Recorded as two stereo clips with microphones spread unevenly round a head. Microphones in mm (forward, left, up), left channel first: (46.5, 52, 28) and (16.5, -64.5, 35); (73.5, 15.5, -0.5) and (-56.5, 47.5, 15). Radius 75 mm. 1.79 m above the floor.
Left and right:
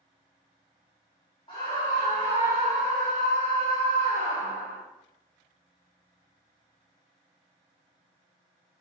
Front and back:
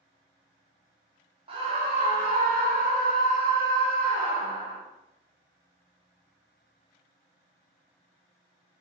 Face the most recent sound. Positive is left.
turn(degrees=-135)